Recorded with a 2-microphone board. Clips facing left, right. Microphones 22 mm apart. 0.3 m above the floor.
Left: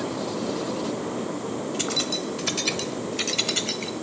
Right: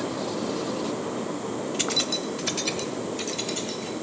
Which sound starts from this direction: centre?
Keys jangling, at 1.8 s.